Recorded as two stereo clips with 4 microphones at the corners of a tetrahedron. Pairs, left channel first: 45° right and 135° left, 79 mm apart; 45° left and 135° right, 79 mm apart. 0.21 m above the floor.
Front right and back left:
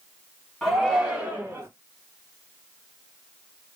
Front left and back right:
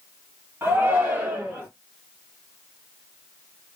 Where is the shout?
130° right, 1.5 m; by 1.7 s 165° left, 1.7 m.